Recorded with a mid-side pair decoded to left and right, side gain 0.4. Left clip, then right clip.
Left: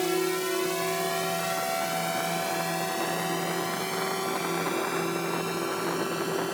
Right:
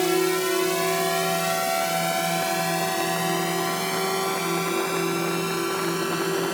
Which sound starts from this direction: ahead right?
A drone, at 0.0 s.